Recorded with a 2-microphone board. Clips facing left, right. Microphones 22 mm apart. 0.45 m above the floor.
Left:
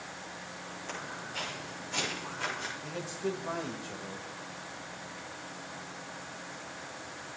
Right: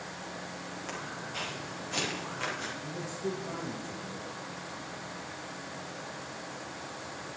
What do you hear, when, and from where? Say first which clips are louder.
0.9 s footsteps: even; 25° right (ahead or behind), 7 m; by 2.7 s 20° right (ahead or behind), 5.5 m
2.8 s a man speaking: even; 50° left (ahead or behind), 1.7 m